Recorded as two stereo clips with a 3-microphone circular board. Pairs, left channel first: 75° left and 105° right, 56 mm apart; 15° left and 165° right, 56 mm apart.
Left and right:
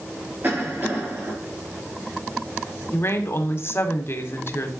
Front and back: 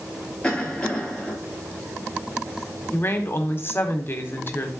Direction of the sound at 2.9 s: 50° left.